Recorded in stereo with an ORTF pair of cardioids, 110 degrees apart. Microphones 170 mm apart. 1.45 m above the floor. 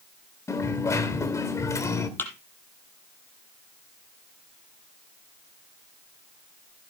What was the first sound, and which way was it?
A dropped coin, 20° left.